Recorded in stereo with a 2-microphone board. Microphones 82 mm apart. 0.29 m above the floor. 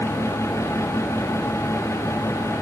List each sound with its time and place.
Only background noise.